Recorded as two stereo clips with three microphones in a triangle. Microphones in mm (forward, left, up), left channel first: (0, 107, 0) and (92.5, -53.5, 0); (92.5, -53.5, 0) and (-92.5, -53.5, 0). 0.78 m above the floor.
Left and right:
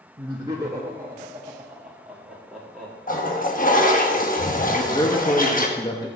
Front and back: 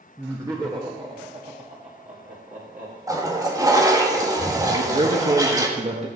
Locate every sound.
0.2 s laughter: 110° right, 1.3 m; by 3.0 s 155° right, 2 m
3.1 s a toilet flushing: 115° left, 1.2 m
4.7 s a man speaking: 170° left, 1.1 m